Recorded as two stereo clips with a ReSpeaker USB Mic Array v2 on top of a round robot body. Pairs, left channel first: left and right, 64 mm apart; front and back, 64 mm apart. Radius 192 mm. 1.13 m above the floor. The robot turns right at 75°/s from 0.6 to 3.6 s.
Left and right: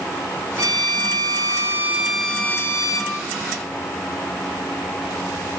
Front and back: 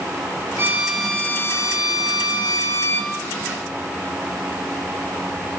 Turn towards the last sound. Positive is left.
turn(degrees=105)